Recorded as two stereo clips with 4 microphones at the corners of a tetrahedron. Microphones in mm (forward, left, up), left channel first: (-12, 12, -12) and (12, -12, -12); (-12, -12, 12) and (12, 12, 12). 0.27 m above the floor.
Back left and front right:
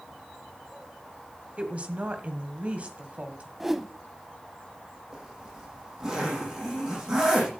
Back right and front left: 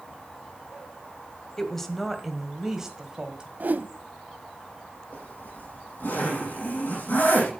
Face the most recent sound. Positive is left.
turn(degrees=-120)